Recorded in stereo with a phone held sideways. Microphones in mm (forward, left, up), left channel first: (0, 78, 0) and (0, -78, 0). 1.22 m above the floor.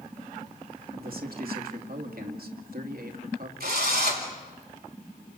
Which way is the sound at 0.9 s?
70° right (ahead or behind).